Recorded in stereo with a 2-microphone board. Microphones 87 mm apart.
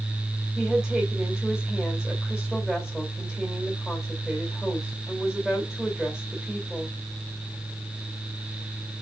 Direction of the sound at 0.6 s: Centre (ahead or behind).